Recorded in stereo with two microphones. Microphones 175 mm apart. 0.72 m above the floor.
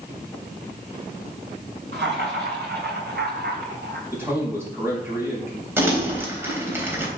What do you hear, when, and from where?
1.9 s laughter: 75° right (ahead or behind), 5.5 m; by 4.0 s 70° right (ahead or behind), 4 m
4.1 s a man speaking: 15° right (ahead or behind), 4.5 m
5.8 s crumpling: 15° right (ahead or behind), 3.5 m